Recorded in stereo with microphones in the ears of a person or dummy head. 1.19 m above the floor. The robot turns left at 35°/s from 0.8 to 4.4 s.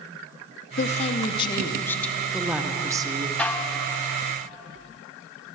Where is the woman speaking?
50° left, 0.7 m; by 3.3 s 40° right, 0.7 m.